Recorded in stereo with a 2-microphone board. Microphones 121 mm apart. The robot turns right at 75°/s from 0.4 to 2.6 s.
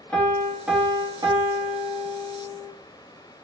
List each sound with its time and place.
0.1 s a piano: 165° left, 0.9 m; by 2.7 s 30° right, 0.9 m